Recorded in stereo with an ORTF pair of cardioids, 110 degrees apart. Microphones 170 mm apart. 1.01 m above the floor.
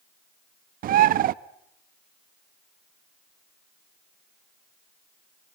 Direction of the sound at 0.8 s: 60° right.